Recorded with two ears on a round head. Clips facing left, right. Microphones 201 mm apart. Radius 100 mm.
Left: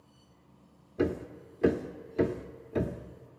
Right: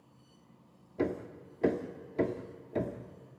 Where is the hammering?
10° left (ahead or behind), 1.0 m.